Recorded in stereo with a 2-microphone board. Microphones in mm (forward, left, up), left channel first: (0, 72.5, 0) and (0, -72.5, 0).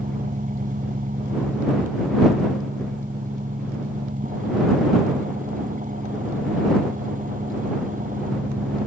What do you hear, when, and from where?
0.0 s an engine running: 65° right (ahead or behind)